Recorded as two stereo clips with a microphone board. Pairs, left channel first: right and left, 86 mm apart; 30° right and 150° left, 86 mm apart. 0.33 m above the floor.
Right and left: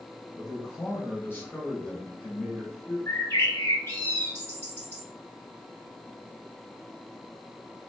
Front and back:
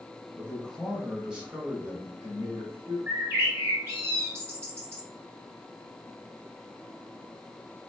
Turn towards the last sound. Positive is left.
turn(degrees=-150)